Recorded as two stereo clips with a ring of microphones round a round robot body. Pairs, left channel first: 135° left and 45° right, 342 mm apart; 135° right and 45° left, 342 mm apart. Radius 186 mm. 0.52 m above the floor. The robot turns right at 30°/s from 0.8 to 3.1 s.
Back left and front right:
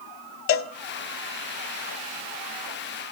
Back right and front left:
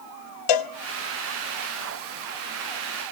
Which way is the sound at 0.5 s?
170° right.